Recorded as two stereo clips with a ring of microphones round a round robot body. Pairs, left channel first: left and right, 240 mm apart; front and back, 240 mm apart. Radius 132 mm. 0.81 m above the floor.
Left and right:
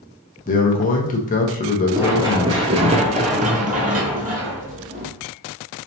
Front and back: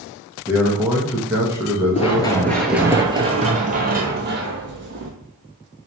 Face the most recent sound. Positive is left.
turn(degrees=-145)